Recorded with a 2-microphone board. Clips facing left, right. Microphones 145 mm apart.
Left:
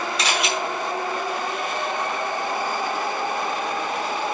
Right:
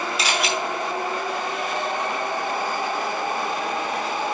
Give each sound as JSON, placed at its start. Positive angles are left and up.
{"t": 0.2, "sound": "a camera shutter", "side_deg": -5, "distance_m": 3.0}